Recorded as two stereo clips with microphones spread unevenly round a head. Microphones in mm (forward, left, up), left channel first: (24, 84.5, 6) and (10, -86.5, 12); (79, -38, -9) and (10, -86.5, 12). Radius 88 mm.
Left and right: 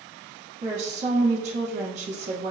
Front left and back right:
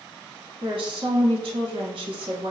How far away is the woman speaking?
About 1.0 m.